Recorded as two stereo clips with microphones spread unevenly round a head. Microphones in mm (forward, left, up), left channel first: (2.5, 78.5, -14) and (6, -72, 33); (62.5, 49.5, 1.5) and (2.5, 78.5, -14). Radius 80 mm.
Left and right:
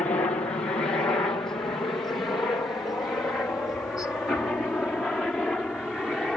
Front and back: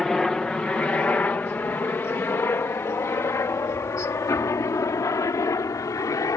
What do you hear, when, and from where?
0.0 s a helicopter: 55° left; by 6.4 s 5° left